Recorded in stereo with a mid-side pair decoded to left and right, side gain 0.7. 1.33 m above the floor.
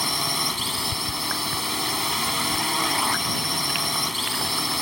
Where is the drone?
5° left.